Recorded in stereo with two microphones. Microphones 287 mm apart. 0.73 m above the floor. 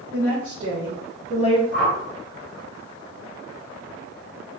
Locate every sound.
0.1 s a woman speaking: 60° right (ahead or behind), 1.4 m; by 1.6 s 10° right (ahead or behind), 0.7 m
1.7 s a whoosh: 55° right (ahead or behind), 1.8 m